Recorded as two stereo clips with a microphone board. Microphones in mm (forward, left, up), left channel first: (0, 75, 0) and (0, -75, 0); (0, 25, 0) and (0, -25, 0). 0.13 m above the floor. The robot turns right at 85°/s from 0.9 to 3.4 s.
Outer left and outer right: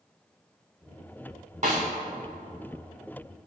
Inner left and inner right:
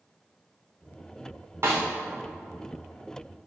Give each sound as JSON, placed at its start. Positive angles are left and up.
{"t": 1.6, "sound": "a snare drum", "side_deg": -50, "distance_m": 2.0}